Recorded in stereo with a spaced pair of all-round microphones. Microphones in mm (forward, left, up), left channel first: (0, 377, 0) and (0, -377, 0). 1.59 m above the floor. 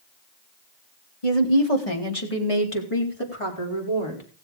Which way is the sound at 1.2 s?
50° left (ahead or behind).